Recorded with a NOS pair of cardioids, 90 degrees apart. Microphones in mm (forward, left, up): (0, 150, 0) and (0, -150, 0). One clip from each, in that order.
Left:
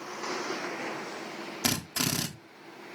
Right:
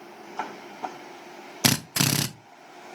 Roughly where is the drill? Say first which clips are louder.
Right 6 dB; ahead right.